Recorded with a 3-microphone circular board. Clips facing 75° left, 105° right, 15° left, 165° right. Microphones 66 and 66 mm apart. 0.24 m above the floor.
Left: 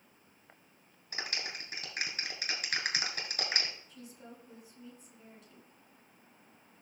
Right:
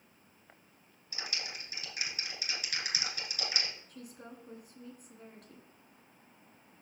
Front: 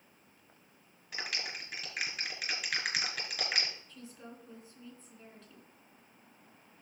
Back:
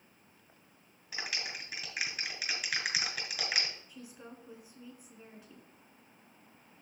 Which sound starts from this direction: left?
A clap, at 1.1 s.